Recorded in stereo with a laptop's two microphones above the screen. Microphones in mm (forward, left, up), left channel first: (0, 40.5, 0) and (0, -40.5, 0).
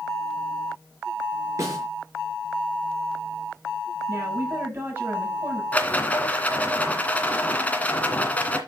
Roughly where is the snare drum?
Right.